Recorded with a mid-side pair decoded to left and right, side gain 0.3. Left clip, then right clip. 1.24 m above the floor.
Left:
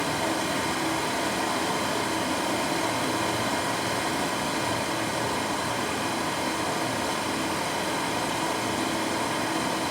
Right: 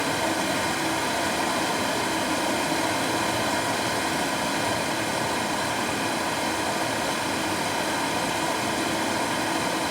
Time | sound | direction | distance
0.0 | running water | 55° right | 3.5 m